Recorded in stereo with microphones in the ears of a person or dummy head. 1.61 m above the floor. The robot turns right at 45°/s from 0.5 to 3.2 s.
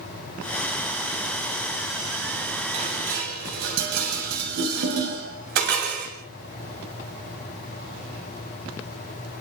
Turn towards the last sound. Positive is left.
turn(degrees=-60)  # may be behind; listen again after turning